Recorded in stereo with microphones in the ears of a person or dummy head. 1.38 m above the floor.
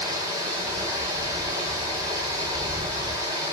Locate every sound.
0.0 s running water: 25° right (ahead or behind), 5.5 m